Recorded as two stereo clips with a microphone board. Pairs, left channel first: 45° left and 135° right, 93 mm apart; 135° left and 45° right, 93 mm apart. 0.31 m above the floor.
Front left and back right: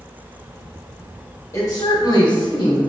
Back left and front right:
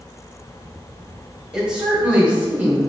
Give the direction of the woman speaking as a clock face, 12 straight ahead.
11 o'clock.